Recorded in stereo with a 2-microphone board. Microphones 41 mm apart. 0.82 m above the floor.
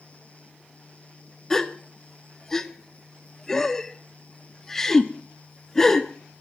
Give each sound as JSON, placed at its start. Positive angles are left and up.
{"t": 1.5, "sound": "a gasp", "side_deg": 10, "distance_m": 1.2}